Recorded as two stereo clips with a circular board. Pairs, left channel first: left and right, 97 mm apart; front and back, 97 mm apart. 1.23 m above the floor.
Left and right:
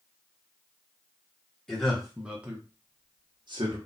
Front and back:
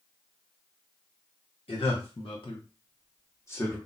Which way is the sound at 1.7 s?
5° left.